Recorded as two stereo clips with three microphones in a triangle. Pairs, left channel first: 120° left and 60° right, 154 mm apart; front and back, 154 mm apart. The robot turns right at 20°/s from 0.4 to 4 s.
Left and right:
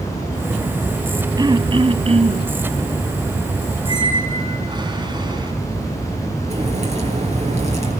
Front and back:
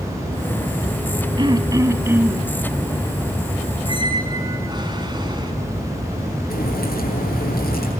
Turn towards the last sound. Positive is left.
turn(degrees=-15)